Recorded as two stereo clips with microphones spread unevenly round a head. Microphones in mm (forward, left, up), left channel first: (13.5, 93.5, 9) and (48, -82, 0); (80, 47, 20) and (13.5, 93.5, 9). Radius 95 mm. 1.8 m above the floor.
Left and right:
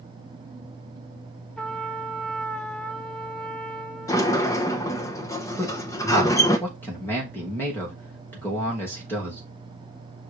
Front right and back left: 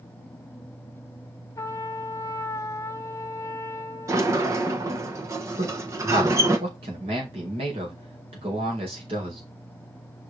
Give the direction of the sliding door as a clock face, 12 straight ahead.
7 o'clock.